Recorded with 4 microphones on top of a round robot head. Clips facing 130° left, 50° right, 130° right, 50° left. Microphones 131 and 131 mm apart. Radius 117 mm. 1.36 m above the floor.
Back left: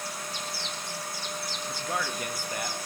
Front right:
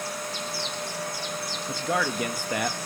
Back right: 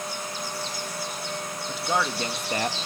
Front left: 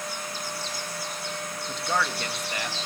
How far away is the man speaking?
About 2 m.